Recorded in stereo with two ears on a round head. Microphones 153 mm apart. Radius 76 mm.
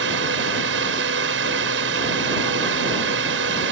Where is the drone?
75° right (ahead or behind).